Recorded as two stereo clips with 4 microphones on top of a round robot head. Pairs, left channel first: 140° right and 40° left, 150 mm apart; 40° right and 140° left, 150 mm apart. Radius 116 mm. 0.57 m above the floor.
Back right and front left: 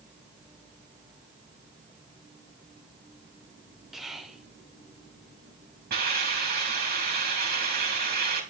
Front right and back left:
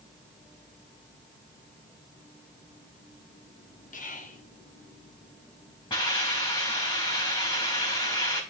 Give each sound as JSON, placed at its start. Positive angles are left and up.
{"t": 3.9, "sound": "whispering", "azimuth_deg": -50, "distance_m": 1.6}
{"t": 5.9, "sound": "a hiss", "azimuth_deg": 20, "distance_m": 4.5}